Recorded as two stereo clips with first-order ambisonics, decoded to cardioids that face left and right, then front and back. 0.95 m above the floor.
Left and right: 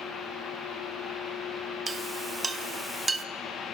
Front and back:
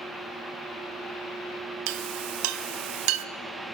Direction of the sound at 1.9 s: 165° right.